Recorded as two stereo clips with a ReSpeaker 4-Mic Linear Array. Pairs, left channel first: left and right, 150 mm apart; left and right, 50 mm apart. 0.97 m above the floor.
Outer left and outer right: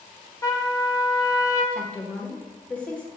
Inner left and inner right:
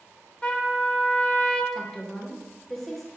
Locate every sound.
0.4 s a trumpet: 20° left (ahead or behind), 0.7 m
1.7 s a woman speaking: 10° left (ahead or behind), 0.8 m